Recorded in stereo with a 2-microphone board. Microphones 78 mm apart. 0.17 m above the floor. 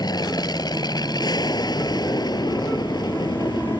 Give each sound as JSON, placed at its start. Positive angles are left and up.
{"t": 0.0, "sound": "an aircraft", "side_deg": 60}